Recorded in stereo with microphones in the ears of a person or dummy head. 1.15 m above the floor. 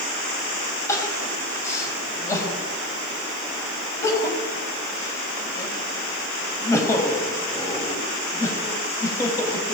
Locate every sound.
0.9 s crying: 15° left (ahead or behind), 5.5 m